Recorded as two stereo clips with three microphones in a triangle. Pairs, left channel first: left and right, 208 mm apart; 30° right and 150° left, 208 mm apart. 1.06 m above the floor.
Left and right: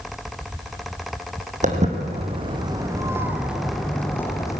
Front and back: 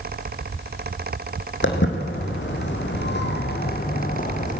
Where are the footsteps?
40° right, 2.5 m; by 4.6 s 20° left, 2.5 m.